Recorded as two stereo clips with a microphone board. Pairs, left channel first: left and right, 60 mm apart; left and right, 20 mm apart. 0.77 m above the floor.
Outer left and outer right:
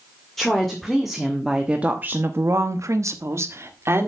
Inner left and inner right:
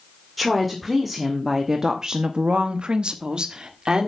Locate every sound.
0.4 s a woman speaking: 5° left (ahead or behind), 2 m; by 4.1 s 40° right (ahead or behind), 1.9 m